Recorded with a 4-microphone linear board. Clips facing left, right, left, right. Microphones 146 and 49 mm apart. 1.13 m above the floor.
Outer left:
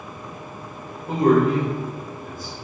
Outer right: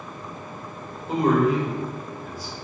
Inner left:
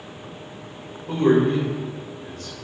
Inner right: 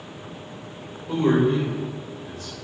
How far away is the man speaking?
About 1.2 m.